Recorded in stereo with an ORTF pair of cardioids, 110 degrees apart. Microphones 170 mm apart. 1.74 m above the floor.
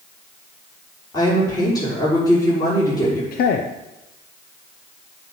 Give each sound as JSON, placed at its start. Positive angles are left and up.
{"t": 1.1, "sound": "a woman speaking", "azimuth_deg": 20, "distance_m": 6.0}
{"t": 3.3, "sound": "a man speaking", "azimuth_deg": 65, "distance_m": 0.9}